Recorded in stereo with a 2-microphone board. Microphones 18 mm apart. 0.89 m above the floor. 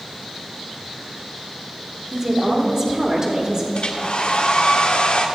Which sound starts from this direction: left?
A hair dryer, at 3.8 s.